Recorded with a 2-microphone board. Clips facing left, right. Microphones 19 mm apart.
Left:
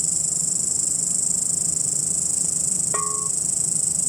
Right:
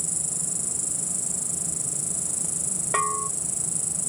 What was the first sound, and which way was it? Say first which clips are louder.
An insect: left 6 dB; 55° left (ahead or behind).